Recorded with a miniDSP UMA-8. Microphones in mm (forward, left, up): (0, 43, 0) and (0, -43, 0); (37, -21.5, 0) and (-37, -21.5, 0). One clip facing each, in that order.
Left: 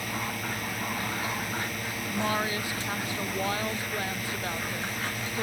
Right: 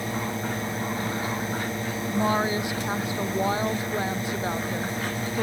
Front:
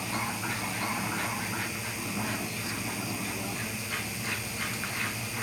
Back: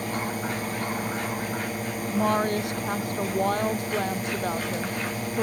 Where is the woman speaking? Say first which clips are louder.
Right 5 dB, back 14 dB; 160° right.